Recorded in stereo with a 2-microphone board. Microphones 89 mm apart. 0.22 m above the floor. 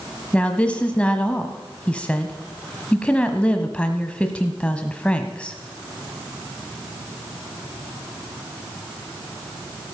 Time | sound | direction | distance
0.3 | a woman speaking | 15° left (ahead or behind) | 1.1 m